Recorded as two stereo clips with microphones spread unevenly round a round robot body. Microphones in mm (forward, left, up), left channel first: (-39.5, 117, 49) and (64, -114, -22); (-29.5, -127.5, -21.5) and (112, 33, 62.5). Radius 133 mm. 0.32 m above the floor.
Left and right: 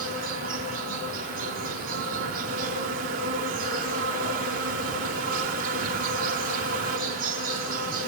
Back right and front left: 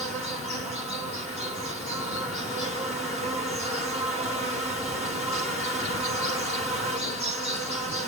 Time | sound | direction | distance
0.0 | an insect | 20° right | 4.5 m